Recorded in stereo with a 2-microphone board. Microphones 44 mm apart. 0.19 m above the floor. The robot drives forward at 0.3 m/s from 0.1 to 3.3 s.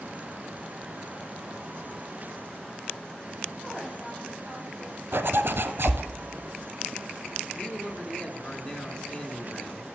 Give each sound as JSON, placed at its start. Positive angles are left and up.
{"t": 3.6, "sound": "a woman speaking", "side_deg": 5, "distance_m": 6.5}
{"t": 5.1, "sound": "a zipper", "side_deg": -80, "distance_m": 0.7}
{"t": 7.5, "sound": "a man speaking", "side_deg": 25, "distance_m": 1.6}